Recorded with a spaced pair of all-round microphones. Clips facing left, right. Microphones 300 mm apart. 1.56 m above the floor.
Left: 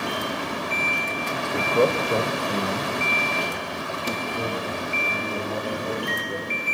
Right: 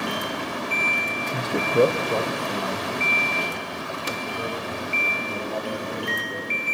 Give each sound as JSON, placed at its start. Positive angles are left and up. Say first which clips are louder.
{"t": 1.3, "sound": "a man speaking", "louder": "right 2 dB", "side_deg": -55, "distance_m": 1.1}